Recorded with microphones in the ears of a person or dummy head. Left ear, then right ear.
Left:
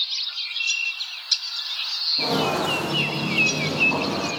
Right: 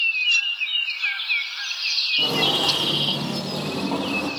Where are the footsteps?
10° right (ahead or behind), 1.9 m; by 4.3 s 45° right (ahead or behind), 2.5 m.